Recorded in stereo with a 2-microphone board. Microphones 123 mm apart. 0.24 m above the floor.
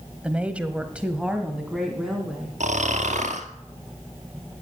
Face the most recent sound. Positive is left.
turn(degrees=-80)